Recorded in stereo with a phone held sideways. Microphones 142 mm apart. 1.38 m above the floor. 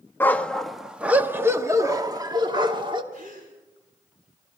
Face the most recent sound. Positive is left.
turn(degrees=-75)  # may be behind; listen again after turning